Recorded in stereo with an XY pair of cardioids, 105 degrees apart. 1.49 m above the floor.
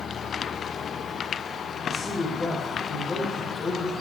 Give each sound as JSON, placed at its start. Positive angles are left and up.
{"t": 1.9, "sound": "a man speaking", "azimuth_deg": 40, "distance_m": 4.0}